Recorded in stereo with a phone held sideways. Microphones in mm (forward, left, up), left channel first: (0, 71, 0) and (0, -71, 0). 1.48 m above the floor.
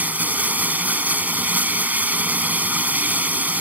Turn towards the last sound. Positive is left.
turn(degrees=-10)  # may be behind; listen again after turning